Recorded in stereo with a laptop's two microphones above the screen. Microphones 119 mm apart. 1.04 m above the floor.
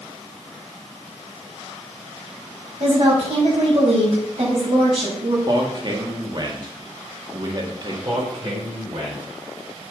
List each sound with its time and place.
2.8 s a woman speaking: 50° right (ahead or behind), 6 m
5.5 s a man speaking: 40° right (ahead or behind), 1.7 m
8.1 s a man speaking: 50° right (ahead or behind), 4.5 m